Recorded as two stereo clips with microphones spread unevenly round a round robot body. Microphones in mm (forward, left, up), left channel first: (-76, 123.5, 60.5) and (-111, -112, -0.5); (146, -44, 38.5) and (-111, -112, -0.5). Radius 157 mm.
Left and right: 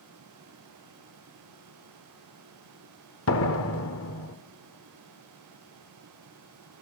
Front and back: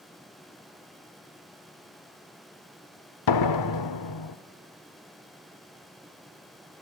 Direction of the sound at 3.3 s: 30° left.